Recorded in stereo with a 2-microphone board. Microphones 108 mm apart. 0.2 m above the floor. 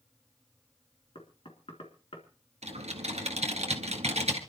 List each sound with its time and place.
1.1 s knocking: 60° left (ahead or behind), 3 m
2.6 s typing on a keyboard: 70° right (ahead or behind), 1.8 m